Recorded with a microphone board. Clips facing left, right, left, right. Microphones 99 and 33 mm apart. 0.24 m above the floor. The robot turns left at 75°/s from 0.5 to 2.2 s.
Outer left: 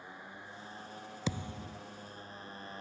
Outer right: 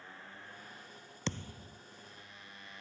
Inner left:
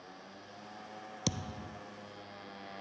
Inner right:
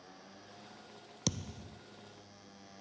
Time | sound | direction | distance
0.0 | a motorcycle | 165° left | ?
1.3 | a thud | 175° left | ?